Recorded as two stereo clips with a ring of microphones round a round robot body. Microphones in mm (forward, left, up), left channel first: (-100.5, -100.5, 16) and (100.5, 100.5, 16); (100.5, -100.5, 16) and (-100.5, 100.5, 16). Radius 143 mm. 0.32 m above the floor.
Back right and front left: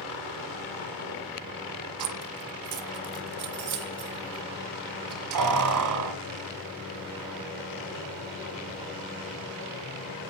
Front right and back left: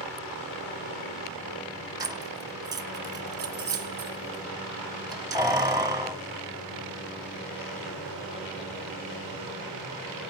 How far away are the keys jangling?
About 1.9 m.